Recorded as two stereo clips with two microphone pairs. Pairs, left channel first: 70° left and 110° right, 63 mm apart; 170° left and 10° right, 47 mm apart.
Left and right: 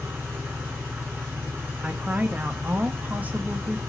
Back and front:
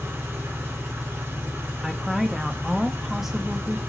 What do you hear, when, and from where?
0.0 s an engine running: 50° right, 5.5 m
1.8 s a woman speaking: 85° right, 0.5 m